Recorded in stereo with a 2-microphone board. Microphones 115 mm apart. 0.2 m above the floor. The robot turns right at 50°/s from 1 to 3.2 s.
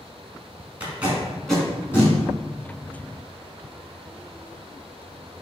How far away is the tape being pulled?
About 1.2 m.